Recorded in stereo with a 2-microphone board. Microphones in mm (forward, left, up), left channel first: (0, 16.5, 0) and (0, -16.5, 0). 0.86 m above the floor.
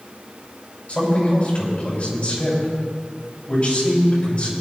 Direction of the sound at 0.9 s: 50° left (ahead or behind).